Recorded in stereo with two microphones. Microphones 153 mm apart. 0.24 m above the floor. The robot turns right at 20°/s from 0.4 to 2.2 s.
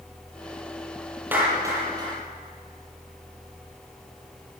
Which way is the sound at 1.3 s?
10° right (ahead or behind).